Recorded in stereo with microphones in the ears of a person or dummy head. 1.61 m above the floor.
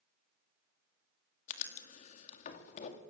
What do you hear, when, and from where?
1.5 s writing: 50° left (ahead or behind), 1.9 m